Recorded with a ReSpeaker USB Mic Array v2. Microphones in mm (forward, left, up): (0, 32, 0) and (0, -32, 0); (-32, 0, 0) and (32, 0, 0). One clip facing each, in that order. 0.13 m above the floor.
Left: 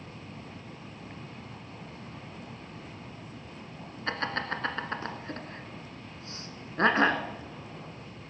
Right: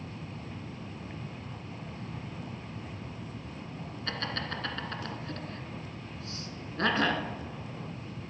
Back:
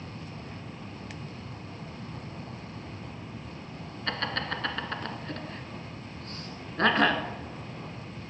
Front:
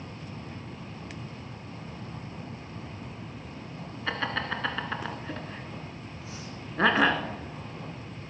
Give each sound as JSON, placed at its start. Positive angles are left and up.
{"t": 4.1, "sound": "laughter", "azimuth_deg": 75, "distance_m": 1.3}